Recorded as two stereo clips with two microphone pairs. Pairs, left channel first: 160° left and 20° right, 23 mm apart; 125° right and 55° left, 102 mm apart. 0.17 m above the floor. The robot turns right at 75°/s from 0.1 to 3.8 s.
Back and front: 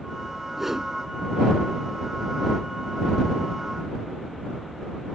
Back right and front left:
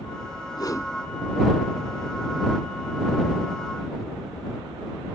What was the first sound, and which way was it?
A whoosh, 95° right.